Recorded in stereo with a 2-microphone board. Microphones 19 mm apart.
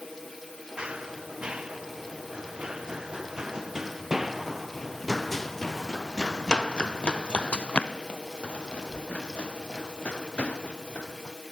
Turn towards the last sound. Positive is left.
turn(degrees=90)